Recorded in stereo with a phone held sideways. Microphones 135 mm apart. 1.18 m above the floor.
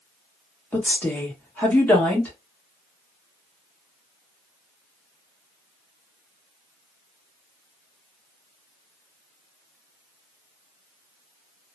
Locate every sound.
0.7 s a woman speaking: 15° left (ahead or behind), 1.2 m